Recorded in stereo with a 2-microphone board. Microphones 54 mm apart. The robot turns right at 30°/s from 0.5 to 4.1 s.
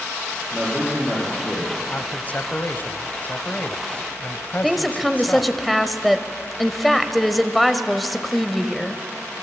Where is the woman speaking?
Centre (ahead or behind), 1.2 m.